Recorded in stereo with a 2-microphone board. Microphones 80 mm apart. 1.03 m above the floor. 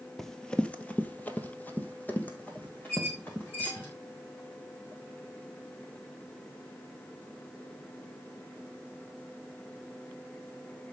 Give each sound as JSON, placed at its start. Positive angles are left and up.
{"t": 0.2, "sound": "running footsteps", "side_deg": 5, "distance_m": 1.1}
{"t": 2.9, "sound": "a squeak", "side_deg": 30, "distance_m": 6.5}